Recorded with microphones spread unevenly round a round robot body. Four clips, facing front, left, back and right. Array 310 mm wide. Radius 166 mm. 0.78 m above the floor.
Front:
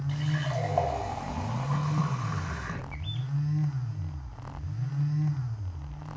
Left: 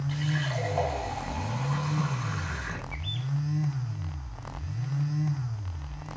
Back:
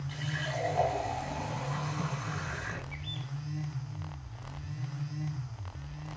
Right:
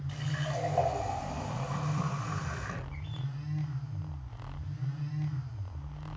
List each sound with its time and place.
0.1 s a running tap: 5° left, 5 m
2.9 s a bird: 45° left, 6 m